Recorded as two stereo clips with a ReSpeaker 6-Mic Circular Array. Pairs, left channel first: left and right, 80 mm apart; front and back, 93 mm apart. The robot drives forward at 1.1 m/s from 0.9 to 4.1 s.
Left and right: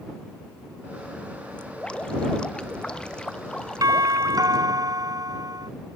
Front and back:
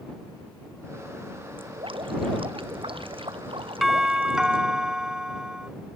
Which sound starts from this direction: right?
A doorbell, at 3.8 s.